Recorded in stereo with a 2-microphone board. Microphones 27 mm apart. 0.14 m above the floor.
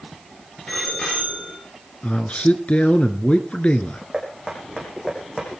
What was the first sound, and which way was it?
A bicycle bell, 40° left (ahead or behind).